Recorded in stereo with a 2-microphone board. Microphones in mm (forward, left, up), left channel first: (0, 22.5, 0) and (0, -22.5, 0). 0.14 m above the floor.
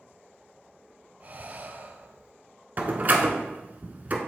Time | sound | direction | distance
1.2 | breathing | 40° right (ahead or behind) | 0.6 m
2.8 | a door slam | 40° right (ahead or behind) | 1.1 m